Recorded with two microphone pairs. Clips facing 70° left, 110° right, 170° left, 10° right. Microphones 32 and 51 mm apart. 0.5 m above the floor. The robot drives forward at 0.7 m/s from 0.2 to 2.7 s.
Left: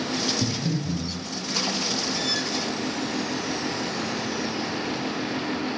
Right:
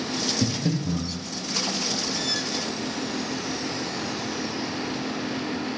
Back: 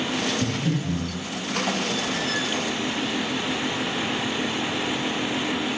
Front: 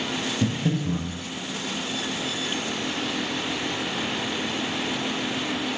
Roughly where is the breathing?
Ahead right.